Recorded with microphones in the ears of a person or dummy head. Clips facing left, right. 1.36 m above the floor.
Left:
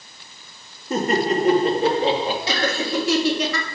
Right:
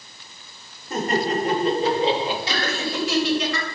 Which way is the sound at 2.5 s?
80° left.